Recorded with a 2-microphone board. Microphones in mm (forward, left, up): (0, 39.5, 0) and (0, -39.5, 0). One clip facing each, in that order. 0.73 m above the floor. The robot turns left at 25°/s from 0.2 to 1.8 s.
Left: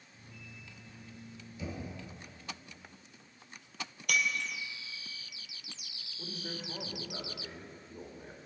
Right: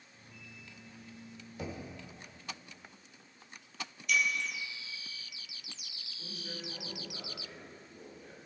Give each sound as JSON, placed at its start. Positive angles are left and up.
{"t": 1.6, "sound": "knocking", "side_deg": -60, "distance_m": 2.0}
{"t": 4.1, "sound": "breaking glass", "side_deg": 65, "distance_m": 1.5}
{"t": 6.2, "sound": "a man speaking", "side_deg": 40, "distance_m": 2.5}